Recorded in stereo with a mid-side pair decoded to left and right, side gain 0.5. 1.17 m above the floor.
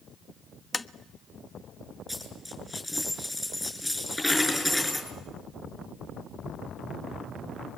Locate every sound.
0.7 s tapping: 20° left, 0.8 m
2.1 s a dropped coin: 10° left, 7 m